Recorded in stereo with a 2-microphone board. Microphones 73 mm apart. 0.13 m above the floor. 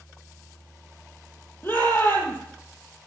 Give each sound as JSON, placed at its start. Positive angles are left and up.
{"t": 1.6, "sound": "a shout", "side_deg": 30, "distance_m": 4.0}